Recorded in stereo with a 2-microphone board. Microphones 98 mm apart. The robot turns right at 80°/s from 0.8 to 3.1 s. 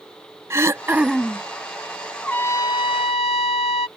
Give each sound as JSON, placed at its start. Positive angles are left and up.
{"t": 0.5, "sound": "throat clearing", "azimuth_deg": -30}
{"t": 2.2, "sound": "a trumpet", "azimuth_deg": 10}